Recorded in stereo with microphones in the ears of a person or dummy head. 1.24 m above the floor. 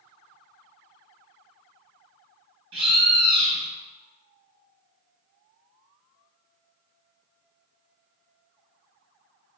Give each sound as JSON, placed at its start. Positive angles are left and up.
{"t": 2.7, "sound": "a bird", "side_deg": -30, "distance_m": 1.5}